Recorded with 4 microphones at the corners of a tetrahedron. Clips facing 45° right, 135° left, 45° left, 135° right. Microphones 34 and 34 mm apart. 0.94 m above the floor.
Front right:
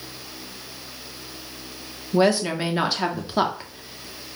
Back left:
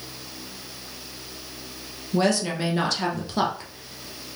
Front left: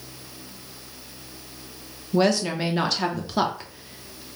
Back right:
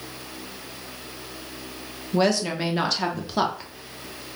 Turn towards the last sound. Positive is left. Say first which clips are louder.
# front right 3 dB, front left 1 dB
turn(degrees=-45)